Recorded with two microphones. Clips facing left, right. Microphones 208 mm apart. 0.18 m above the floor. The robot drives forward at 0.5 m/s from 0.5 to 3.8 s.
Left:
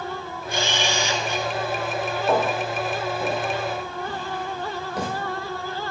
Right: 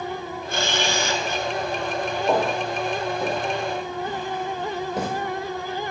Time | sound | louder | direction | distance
0.5 | a camera shutter | even | 60° right (ahead or behind) | 1.0 m
2.3 | footsteps | even | 10° right (ahead or behind) | 4 m